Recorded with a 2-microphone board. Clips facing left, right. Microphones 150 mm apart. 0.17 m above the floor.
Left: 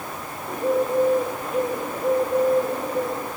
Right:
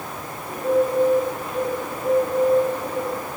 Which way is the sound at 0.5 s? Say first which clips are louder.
Right 2 dB; 55° left (ahead or behind).